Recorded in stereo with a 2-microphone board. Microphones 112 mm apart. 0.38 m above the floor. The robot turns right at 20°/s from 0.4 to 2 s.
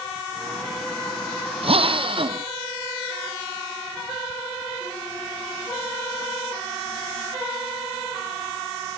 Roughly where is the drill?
Right.